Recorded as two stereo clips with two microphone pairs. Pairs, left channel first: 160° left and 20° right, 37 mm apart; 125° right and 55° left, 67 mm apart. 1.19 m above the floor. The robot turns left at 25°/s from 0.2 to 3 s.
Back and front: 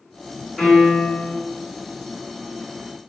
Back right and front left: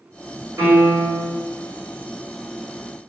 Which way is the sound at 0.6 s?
55° left.